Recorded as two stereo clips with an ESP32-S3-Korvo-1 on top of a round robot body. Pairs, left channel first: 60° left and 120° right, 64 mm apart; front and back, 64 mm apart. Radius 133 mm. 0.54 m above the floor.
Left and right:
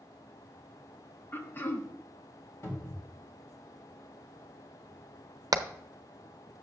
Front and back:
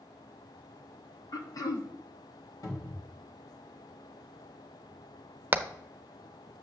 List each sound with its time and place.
1.3 s throat clearing: 5° left, 1.0 m
2.6 s a cupboard door: 15° left, 2.5 m
5.5 s hammering: 120° right, 0.7 m